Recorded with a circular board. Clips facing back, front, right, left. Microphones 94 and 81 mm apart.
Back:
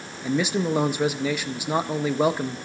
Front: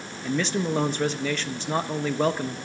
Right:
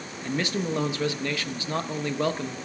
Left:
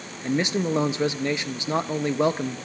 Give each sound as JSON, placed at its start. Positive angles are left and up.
{"t": 0.2, "sound": "a man speaking", "azimuth_deg": 120, "distance_m": 0.7}